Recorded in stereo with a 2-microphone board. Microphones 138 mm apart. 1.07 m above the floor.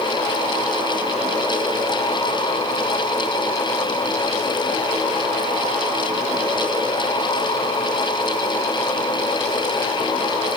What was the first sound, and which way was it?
Only background noise.